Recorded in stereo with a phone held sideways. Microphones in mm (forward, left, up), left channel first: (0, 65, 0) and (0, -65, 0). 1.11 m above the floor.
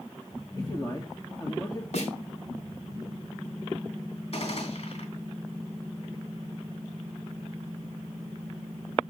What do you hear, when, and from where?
0.6 s a man speaking: 35° left (ahead or behind), 2 m
1.9 s a snare drum: 65° left (ahead or behind), 4 m
4.3 s a gunshot: 60° left (ahead or behind), 3 m